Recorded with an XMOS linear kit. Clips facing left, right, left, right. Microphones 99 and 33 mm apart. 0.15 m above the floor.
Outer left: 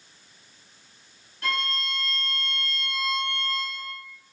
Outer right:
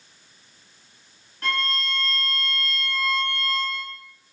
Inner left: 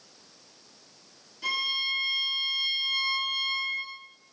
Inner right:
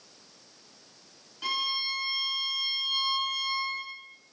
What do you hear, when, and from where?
1.4 s a violin: 40° right (ahead or behind), 1.5 m